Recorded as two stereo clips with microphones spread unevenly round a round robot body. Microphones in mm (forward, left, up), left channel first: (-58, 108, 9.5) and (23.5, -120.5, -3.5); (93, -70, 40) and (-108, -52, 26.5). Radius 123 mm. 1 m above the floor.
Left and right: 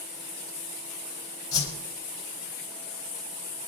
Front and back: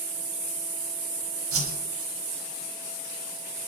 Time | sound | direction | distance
1.5 | a whoosh | 175° right | 4.5 m